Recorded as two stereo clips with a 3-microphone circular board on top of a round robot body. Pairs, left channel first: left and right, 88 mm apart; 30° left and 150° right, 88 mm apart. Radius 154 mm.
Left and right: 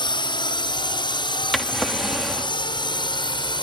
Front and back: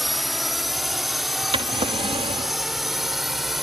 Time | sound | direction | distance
0.0 | a drone | 120° left | ?
1.5 | a drawer | straight behind | ?